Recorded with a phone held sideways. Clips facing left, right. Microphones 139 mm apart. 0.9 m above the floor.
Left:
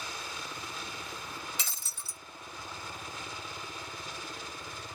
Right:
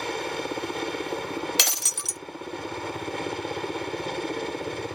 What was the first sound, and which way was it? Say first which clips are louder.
A helicopter: right 13 dB; 65° right (ahead or behind).